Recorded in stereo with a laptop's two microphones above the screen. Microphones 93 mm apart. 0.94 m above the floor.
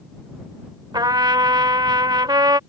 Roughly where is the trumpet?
Right.